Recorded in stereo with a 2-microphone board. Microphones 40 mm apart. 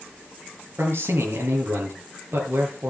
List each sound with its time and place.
0.8 s a man speaking: 85° right, 7.5 m